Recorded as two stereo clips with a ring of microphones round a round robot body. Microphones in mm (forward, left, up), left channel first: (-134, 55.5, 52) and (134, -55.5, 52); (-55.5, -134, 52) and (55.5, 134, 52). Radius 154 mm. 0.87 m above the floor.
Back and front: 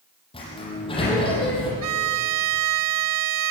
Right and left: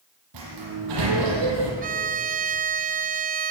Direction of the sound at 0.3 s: 85° left.